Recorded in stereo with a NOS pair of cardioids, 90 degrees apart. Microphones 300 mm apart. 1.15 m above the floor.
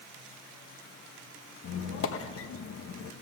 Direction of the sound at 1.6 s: 50° left.